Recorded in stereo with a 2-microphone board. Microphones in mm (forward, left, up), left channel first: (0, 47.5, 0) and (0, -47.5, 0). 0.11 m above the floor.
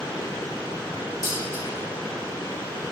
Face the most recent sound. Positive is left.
turn(degrees=40)  # may be behind; listen again after turning